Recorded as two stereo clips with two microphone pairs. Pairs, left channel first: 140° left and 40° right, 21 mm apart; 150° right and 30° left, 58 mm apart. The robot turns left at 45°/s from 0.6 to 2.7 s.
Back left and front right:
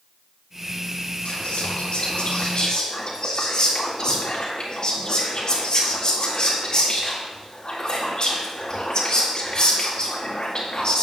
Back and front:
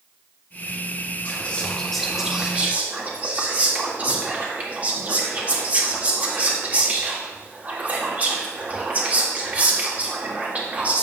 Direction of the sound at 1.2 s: 155° left.